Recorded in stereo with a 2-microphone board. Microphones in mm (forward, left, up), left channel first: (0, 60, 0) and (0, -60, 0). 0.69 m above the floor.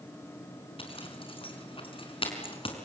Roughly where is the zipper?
Left.